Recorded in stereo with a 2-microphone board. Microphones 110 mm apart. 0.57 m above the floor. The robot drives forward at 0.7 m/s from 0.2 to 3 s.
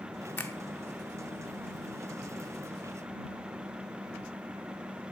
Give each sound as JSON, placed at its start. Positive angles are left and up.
{"t": 0.4, "sound": "a finger snap", "side_deg": 15, "distance_m": 1.1}